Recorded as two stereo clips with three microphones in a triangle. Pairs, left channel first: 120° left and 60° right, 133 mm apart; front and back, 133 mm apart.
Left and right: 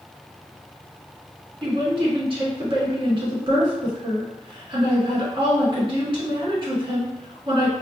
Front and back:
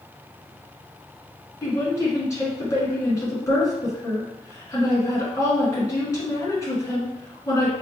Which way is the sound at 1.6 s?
50° right.